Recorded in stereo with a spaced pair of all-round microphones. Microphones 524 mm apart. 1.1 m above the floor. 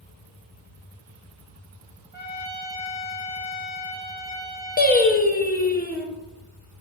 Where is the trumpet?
35° right (ahead or behind), 0.7 m.